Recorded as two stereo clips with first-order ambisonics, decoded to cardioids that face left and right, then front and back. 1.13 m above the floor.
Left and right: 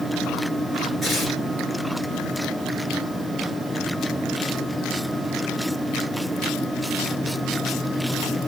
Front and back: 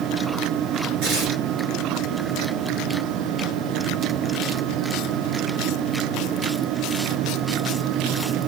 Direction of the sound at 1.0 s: 170° right.